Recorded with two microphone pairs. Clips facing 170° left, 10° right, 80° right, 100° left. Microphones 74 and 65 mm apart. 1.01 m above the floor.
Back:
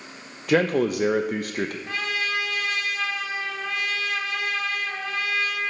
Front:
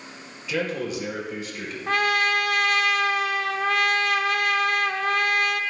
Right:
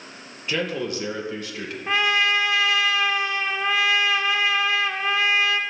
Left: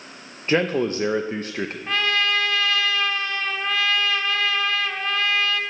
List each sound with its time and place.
0.5 s a man speaking: 145° left, 0.6 m
1.9 s a trumpet: 10° right, 0.6 m